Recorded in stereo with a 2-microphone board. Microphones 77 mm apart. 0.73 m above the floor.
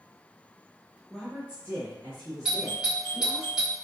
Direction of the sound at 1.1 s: 10° left (ahead or behind).